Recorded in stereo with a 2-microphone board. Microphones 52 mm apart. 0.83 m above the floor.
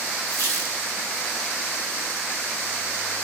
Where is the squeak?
70° right (ahead or behind), 1.7 m.